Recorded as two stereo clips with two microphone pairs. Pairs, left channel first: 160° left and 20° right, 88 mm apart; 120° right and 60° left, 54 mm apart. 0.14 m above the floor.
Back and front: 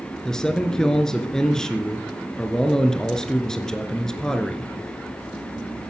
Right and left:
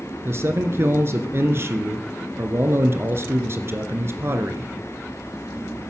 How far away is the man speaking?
About 2 m.